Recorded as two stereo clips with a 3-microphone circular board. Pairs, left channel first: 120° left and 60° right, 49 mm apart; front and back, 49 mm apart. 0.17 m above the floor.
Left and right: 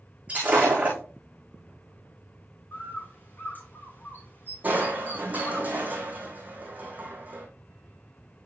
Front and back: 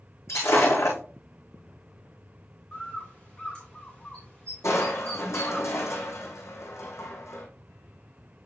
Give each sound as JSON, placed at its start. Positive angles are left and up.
{"t": 0.3, "sound": "breaking glass", "azimuth_deg": 0, "distance_m": 5.0}
{"t": 2.7, "sound": "a bird", "azimuth_deg": 70, "distance_m": 2.0}
{"t": 4.6, "sound": "crushing", "azimuth_deg": -5, "distance_m": 2.0}